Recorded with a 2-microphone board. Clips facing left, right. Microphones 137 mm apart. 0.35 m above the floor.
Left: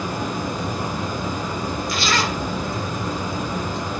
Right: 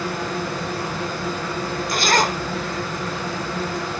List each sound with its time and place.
0.0 s running water: 15° left (ahead or behind), 2.5 m
1.9 s a zipper: 45° right (ahead or behind), 0.6 m